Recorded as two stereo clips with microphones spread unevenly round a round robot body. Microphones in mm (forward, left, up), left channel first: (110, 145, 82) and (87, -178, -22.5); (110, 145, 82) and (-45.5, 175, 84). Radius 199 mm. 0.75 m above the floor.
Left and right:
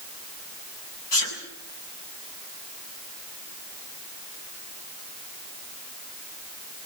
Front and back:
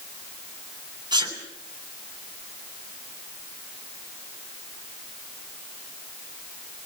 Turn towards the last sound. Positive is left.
turn(degrees=105)